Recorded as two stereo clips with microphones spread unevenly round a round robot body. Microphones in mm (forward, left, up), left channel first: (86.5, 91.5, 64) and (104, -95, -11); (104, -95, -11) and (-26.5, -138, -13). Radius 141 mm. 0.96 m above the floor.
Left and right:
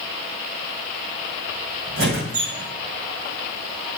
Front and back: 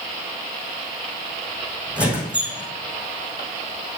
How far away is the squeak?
About 4 m.